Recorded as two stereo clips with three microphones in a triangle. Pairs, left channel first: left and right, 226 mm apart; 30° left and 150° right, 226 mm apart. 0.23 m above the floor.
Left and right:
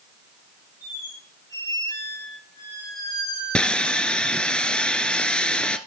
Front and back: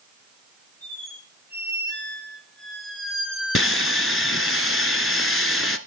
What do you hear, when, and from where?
0.8 s a squeak: 15° left, 4 m
3.5 s sawing: 5° left, 0.9 m